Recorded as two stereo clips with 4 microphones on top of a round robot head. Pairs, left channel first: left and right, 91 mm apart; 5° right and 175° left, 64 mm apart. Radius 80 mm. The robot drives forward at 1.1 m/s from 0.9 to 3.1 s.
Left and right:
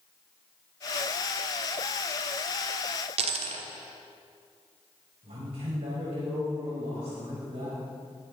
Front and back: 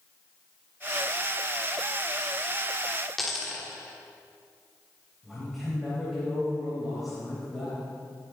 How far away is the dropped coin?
About 1.0 m.